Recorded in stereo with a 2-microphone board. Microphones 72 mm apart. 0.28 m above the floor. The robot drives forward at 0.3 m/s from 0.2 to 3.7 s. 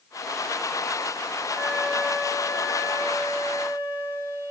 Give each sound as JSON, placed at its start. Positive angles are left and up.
{"t": 1.6, "sound": "a flute", "side_deg": -25, "distance_m": 2.0}